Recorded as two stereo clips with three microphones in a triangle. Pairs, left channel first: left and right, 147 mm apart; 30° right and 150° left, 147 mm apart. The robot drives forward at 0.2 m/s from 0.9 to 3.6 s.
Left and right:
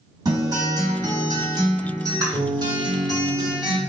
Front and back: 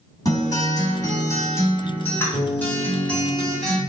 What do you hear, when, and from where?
0.2 s a guitar: 65° right, 1.3 m; by 3.8 s 110° right, 1.3 m